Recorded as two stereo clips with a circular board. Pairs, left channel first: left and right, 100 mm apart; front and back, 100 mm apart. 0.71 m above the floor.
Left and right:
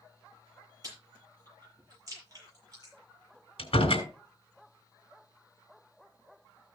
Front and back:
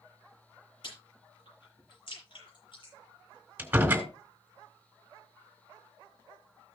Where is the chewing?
35° right, 7.5 m.